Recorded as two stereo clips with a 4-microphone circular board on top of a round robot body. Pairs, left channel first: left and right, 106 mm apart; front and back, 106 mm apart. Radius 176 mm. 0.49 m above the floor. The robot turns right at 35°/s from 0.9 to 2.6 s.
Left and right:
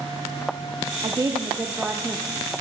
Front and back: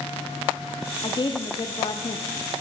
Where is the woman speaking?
45° right, 1.1 m; by 2.2 s 5° right, 1.1 m.